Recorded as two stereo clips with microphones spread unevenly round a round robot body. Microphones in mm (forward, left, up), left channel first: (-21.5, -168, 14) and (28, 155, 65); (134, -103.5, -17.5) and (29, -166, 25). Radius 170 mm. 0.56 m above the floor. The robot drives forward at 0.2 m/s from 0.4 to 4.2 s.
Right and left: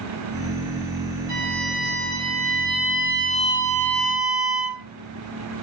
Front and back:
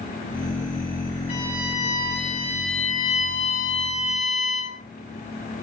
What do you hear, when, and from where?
1.3 s a violin: 40° left, 8 m; by 4.8 s 45° left, 8 m